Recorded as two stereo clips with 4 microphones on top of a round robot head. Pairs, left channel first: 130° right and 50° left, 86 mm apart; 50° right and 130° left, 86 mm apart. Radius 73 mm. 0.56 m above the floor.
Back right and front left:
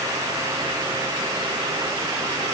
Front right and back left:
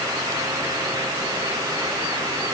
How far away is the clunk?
No clunk in this recording.